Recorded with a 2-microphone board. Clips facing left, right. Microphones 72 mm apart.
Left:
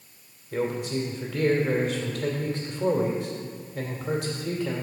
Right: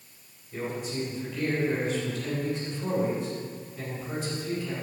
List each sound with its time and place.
0.5 s a man speaking: 75° left (ahead or behind), 2.5 m